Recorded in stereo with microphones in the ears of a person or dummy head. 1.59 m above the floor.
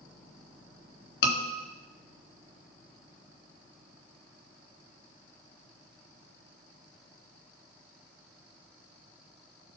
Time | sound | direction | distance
1.2 | a scream | 60° left (ahead or behind) | 3.5 m